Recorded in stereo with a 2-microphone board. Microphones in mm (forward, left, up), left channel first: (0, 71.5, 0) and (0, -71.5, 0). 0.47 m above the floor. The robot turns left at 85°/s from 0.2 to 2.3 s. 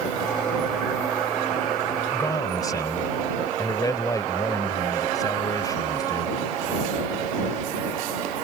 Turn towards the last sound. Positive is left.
turn(degrees=25)  # may be behind; listen again after turning